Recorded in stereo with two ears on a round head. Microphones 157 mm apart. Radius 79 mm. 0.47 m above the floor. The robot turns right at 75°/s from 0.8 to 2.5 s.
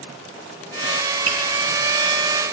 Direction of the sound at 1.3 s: 30° right (ahead or behind).